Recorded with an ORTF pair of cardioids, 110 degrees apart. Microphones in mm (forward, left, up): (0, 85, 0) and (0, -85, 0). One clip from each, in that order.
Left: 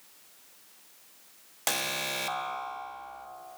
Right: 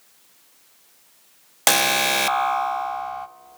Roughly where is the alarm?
Ahead right.